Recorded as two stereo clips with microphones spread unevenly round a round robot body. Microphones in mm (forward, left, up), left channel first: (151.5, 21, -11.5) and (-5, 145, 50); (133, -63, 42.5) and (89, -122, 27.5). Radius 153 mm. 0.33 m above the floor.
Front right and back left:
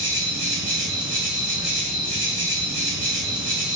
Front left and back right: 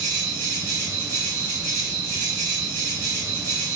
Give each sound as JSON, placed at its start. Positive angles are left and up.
{"t": 0.0, "sound": "an insect", "azimuth_deg": -175, "distance_m": 1.6}